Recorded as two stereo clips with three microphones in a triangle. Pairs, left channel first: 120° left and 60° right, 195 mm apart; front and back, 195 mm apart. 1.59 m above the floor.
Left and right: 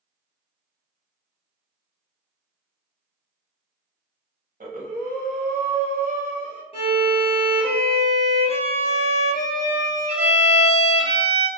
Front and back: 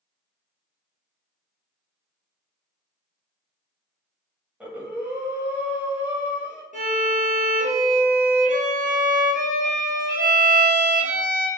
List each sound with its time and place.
4.6 s breathing: 100° right, 0.8 m
6.7 s a violin: 165° left, 0.9 m